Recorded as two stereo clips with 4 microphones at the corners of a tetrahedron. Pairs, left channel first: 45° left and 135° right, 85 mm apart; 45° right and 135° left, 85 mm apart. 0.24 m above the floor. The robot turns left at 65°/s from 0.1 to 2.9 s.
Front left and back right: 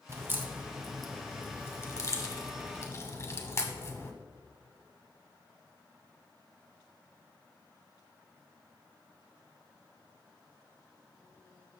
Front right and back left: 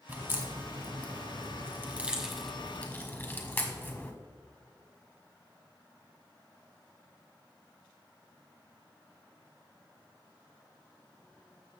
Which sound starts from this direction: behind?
A crack, at 0.1 s.